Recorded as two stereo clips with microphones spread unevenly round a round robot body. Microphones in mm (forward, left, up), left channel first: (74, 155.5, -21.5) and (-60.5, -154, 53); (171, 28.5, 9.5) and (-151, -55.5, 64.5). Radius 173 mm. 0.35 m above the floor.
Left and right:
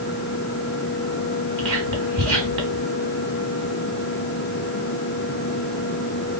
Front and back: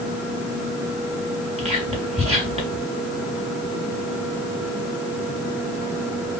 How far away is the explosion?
I don't hear an explosion.